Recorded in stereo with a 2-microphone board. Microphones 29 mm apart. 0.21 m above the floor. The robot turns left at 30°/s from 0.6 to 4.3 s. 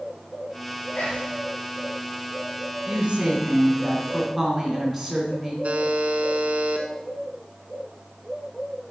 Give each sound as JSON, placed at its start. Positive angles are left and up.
{"t": 0.9, "sound": "whispering", "side_deg": 65, "distance_m": 3.5}
{"t": 2.9, "sound": "a woman speaking", "azimuth_deg": -130, "distance_m": 2.5}
{"t": 5.6, "sound": "a buzzer", "side_deg": -55, "distance_m": 0.9}